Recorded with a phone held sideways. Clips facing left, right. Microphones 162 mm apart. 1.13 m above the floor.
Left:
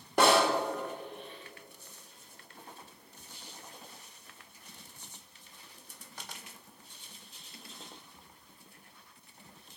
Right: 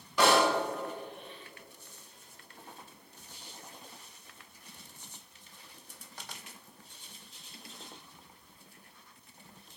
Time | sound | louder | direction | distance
0.2 | a snare drum | left 1 dB | 50° left (ahead or behind) | 2 m